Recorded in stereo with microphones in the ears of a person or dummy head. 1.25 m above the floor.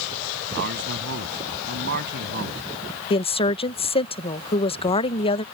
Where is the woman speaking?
30° left (ahead or behind).